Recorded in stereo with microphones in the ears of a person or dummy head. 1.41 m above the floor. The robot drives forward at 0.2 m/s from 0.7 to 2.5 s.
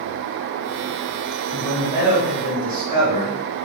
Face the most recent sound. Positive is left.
turn(degrees=-25)  # may be behind; listen again after turning